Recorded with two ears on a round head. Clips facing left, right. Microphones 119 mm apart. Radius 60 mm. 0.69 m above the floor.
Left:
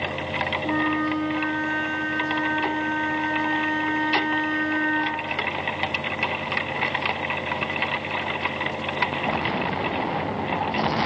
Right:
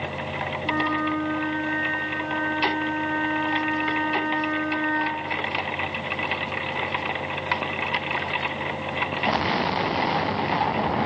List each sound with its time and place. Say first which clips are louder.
0.6 s a flute: left 1 dB; 25° left (ahead or behind), 1.9 m